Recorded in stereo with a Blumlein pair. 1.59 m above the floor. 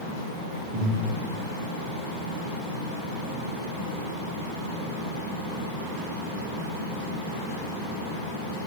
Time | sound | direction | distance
0.7 | breathing | 50° right | 6.5 m